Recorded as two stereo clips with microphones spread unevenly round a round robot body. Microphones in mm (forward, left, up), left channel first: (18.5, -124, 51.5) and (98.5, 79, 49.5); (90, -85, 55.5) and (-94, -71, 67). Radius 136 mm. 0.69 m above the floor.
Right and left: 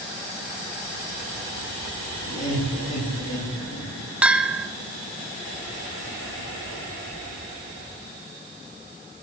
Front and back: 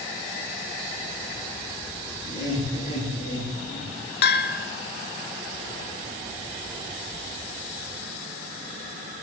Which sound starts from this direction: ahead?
A bell, at 4.2 s.